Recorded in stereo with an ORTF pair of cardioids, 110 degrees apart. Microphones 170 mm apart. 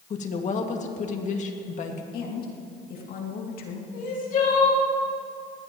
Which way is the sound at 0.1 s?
45° left.